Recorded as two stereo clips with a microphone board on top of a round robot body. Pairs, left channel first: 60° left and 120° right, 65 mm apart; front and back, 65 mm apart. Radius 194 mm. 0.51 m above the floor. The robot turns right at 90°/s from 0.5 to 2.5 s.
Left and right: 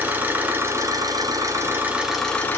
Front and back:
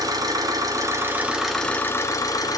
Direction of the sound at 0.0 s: Straight behind.